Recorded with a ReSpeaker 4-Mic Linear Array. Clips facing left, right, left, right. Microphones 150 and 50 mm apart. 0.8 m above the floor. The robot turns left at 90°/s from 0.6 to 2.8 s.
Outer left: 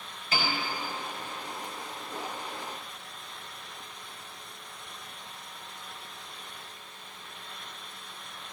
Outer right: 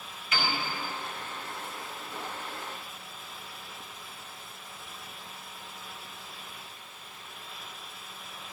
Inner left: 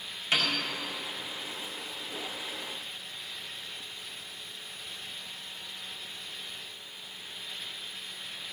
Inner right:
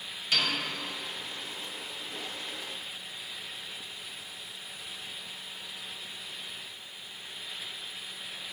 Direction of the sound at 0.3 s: 35° left (ahead or behind).